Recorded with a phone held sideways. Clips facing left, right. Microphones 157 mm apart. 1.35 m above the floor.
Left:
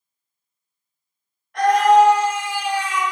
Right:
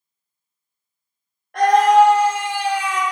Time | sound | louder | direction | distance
1.5 | a scream | right 1 dB | 60° right (ahead or behind) | 1.3 m